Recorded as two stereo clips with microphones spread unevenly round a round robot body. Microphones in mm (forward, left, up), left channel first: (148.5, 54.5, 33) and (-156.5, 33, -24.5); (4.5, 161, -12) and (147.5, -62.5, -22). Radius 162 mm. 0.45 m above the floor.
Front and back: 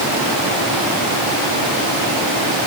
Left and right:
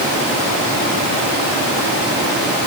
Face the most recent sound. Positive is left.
No sound to turn to.